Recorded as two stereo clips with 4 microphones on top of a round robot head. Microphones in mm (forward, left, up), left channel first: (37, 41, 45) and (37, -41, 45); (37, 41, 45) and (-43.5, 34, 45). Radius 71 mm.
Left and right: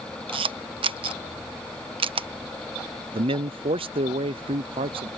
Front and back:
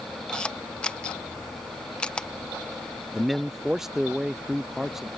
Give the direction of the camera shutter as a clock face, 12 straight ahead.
3 o'clock.